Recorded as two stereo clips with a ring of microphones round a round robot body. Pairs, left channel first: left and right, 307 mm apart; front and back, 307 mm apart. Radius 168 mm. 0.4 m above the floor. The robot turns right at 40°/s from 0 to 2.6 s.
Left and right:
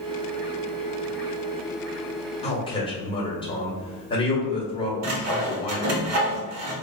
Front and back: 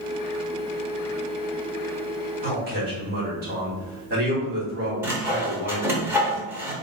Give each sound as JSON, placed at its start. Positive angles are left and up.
{"t": 2.4, "sound": "a man speaking", "azimuth_deg": 145, "distance_m": 1.1}
{"t": 5.0, "sound": "sawing", "azimuth_deg": -100, "distance_m": 0.8}